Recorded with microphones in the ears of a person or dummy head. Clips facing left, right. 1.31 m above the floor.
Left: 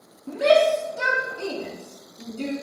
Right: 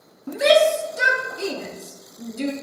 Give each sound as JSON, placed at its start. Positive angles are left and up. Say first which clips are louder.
{"t": 0.3, "sound": "a shout", "louder": "right 1 dB", "side_deg": -30, "distance_m": 0.5}